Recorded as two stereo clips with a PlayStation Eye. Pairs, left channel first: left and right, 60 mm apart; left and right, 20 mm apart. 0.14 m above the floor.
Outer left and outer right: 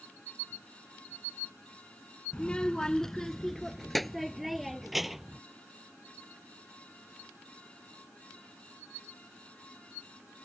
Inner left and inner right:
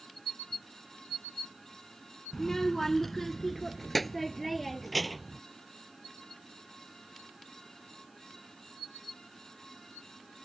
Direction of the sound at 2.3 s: 20° left (ahead or behind).